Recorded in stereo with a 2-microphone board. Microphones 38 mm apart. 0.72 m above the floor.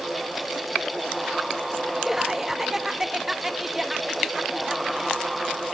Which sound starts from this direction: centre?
Laughter, at 2.0 s.